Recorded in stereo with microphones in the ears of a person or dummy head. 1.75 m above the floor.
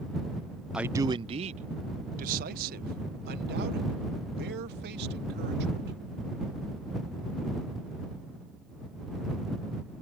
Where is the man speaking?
5° right (ahead or behind); by 6.0 s 60° right (ahead or behind).